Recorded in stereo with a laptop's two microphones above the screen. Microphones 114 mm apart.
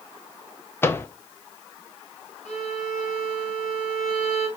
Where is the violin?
70° left (ahead or behind), 3 m.